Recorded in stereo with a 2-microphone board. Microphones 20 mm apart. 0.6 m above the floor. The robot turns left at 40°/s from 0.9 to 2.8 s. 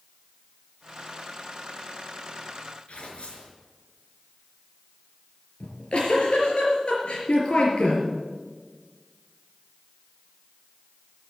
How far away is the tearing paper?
About 3.5 m.